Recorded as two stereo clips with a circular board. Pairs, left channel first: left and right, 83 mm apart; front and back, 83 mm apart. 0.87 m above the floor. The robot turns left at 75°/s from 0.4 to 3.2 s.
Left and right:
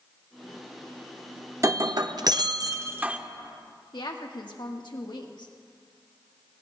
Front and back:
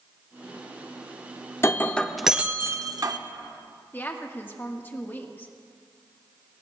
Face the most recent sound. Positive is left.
turn(degrees=65)